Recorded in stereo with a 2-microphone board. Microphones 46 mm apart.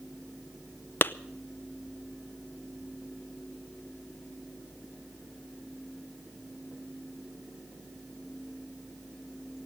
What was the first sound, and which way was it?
A clap, 50° left (ahead or behind).